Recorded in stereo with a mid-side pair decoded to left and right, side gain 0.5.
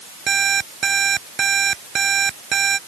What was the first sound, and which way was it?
An alarm clock, 35° right.